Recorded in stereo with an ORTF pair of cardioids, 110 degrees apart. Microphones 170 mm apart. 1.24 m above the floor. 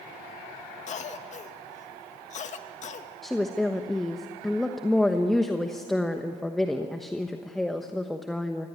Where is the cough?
45° left, 2 m.